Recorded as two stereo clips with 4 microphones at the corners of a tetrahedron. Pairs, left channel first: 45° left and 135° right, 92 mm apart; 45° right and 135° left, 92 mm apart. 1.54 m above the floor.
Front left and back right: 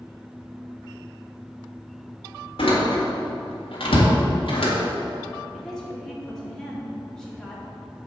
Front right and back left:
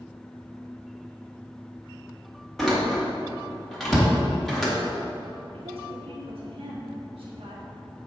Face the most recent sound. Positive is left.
turn(degrees=130)